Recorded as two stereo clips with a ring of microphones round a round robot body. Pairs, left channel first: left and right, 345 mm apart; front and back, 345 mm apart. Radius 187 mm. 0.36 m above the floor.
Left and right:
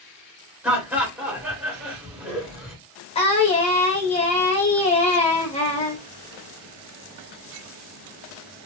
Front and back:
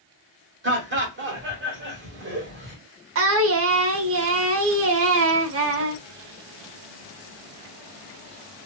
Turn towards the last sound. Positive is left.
turn(degrees=155)